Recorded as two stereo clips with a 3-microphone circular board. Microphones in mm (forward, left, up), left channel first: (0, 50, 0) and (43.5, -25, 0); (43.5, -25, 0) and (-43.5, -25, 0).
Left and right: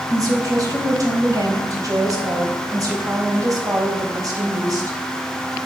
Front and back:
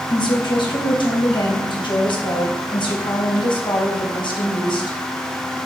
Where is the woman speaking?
15° right, 3.5 m.